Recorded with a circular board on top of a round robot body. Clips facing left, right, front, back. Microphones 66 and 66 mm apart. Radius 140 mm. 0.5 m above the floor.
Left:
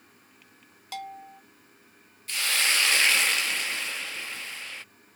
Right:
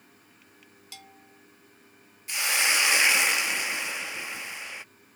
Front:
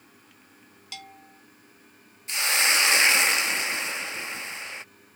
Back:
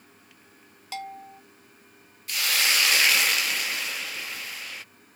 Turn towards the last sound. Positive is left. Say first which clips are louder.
# right 1 dB, front 1 dB
turn(degrees=-35)